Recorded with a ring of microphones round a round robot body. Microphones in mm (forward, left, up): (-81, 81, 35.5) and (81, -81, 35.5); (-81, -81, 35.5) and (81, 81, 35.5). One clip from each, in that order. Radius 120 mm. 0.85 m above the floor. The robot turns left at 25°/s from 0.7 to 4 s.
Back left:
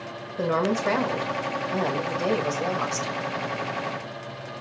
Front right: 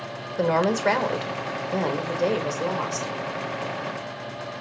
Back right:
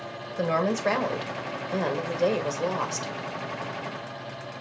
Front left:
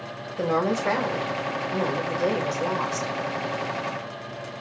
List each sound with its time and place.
0.4 s a woman speaking: 80° right, 1.4 m; by 3.1 s 140° right, 1.4 m